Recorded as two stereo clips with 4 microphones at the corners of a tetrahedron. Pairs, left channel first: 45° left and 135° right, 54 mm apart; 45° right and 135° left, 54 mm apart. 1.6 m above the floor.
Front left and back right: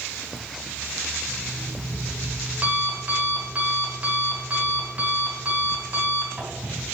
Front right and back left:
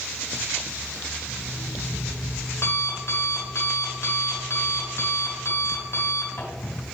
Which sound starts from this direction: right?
An alarm clock, at 1.3 s.